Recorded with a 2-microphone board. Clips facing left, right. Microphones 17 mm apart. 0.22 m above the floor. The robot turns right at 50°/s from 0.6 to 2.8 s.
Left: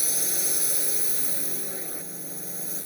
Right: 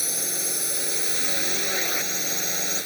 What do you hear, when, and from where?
0.0 s a drone: 170° right; by 2.9 s 60° right